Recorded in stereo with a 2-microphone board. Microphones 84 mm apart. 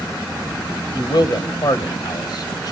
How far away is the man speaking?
About 2 m.